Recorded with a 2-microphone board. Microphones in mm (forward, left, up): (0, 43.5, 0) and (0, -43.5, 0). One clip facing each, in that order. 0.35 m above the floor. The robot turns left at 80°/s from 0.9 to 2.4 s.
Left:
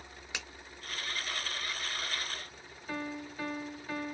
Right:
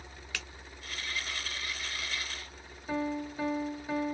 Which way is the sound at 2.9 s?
20° right (ahead or behind).